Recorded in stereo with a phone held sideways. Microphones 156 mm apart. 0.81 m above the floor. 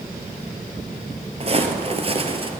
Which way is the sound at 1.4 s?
40° right (ahead or behind).